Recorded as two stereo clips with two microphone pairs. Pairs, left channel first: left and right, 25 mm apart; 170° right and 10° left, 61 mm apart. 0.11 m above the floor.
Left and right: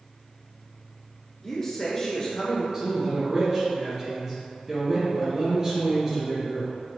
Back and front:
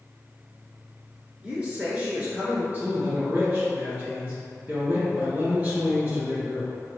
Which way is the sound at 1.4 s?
45° left.